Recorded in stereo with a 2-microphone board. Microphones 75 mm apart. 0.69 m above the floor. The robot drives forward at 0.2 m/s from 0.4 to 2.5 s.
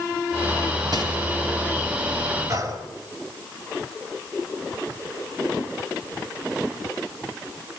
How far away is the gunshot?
About 3.5 m.